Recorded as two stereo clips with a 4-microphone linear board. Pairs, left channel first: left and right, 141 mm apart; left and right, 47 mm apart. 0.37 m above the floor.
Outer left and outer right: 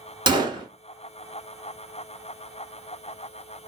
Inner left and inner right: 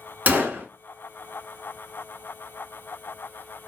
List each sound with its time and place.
0.3 s a gunshot: 35° right (ahead or behind), 0.9 m